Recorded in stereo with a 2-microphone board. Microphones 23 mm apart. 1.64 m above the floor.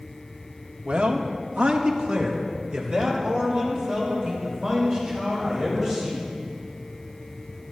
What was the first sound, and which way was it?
A man speaking, 65° right (ahead or behind).